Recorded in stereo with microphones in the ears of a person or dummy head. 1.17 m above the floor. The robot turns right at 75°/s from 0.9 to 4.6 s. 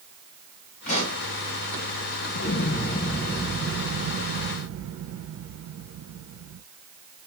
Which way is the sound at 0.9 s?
45° left (ahead or behind).